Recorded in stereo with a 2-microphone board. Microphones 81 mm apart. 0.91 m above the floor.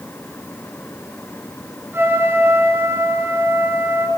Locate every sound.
1.9 s a trumpet: 30° right (ahead or behind), 8 m